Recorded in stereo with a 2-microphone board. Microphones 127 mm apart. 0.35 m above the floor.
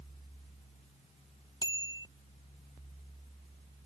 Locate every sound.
1.6 s a bicycle bell: 35° left (ahead or behind)